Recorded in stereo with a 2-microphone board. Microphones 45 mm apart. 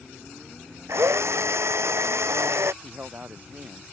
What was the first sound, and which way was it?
A drill, 75° right (ahead or behind).